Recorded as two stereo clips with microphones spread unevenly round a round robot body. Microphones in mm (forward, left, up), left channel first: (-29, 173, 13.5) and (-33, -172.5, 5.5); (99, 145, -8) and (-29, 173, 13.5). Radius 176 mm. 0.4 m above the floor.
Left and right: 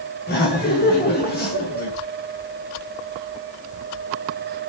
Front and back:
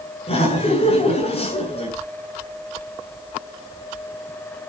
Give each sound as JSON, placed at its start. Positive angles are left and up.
{"t": 0.3, "sound": "laughter", "azimuth_deg": 25, "distance_m": 6.0}